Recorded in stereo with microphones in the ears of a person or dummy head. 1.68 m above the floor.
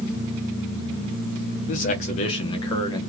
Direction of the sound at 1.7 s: 35° left (ahead or behind).